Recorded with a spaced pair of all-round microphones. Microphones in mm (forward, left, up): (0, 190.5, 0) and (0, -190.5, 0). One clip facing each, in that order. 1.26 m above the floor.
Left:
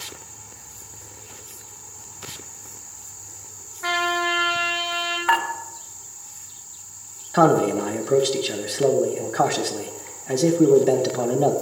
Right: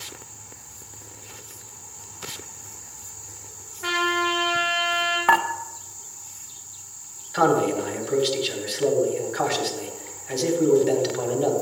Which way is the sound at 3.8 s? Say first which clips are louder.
Right 1 dB; 45° right (ahead or behind).